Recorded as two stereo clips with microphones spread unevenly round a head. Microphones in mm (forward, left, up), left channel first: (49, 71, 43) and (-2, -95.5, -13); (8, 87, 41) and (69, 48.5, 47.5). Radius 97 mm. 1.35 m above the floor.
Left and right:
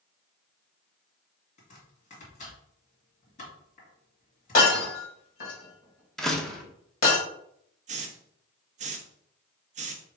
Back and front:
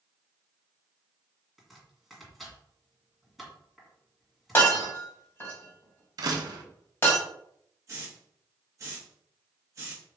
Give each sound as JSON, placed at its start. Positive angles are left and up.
{"t": 1.6, "sound": "chopping", "azimuth_deg": 55, "distance_m": 2.0}
{"t": 4.5, "sound": "breaking glass", "azimuth_deg": 85, "distance_m": 2.5}
{"t": 6.2, "sound": "a door slam", "azimuth_deg": -5, "distance_m": 0.8}
{"t": 7.9, "sound": "a hiss", "azimuth_deg": -55, "distance_m": 0.7}